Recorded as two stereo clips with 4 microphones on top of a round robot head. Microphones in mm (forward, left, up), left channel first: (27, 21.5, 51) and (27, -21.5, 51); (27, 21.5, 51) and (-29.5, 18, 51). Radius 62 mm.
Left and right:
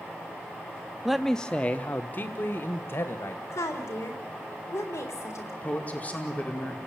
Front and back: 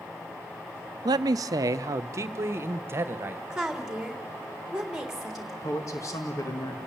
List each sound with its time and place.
1.1 s a man speaking: 175° right, 0.6 m; by 3.4 s 135° left, 1.6 m
3.5 s a woman speaking: 105° left, 3.5 m
5.6 s a man speaking: 35° left, 2.5 m